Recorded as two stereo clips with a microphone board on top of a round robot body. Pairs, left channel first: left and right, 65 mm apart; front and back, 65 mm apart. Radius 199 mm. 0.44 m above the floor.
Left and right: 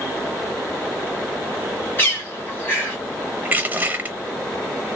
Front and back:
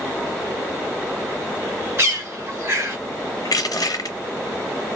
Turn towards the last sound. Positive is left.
turn(degrees=-25)